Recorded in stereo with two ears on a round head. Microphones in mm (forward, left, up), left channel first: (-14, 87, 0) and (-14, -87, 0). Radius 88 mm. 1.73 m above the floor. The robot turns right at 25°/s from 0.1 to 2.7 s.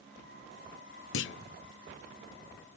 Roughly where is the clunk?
Left.